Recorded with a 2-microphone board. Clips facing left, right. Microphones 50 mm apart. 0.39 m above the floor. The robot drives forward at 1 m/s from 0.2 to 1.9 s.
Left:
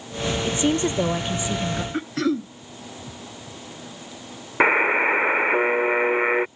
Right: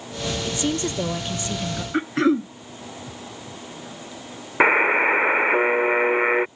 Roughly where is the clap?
I don't hear a clap.